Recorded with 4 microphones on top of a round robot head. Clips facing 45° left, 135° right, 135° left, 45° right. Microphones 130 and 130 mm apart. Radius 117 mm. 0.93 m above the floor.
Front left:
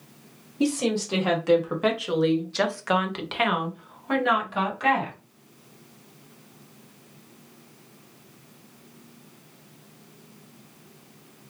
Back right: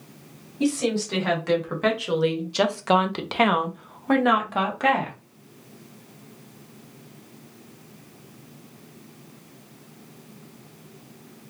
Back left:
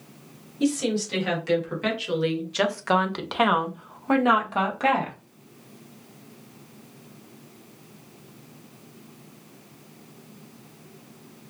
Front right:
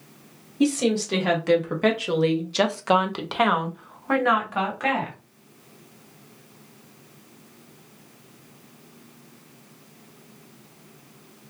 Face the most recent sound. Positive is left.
turn(degrees=-170)